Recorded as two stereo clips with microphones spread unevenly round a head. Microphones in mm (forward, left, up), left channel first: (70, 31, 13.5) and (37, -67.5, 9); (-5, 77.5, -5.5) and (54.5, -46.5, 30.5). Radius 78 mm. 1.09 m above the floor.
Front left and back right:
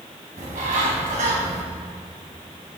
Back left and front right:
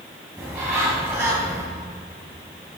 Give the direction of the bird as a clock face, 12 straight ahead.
5 o'clock.